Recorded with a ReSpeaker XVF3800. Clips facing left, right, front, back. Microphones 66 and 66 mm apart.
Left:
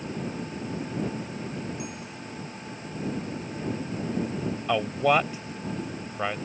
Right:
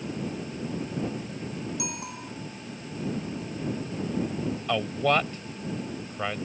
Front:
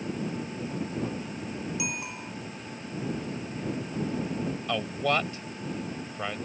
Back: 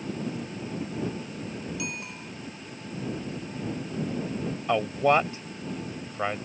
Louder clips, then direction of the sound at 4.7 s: Left 2 dB, back 6 dB; 155° left.